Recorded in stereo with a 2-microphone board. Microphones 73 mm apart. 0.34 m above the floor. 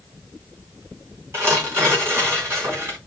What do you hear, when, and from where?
1.3 s tearing paper: 40° right (ahead or behind), 3 m